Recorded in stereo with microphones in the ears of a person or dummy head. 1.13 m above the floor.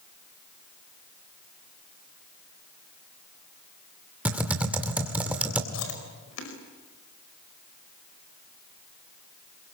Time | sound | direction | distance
4.2 | typing on a keyboard | 10° right (ahead or behind) | 2 m
5.7 | chewing | 75° left (ahead or behind) | 5 m